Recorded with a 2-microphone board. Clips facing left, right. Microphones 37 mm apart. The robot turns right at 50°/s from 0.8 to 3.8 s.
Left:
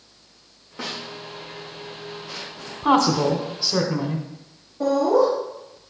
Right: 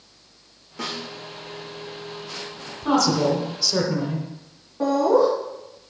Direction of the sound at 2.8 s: 110° left.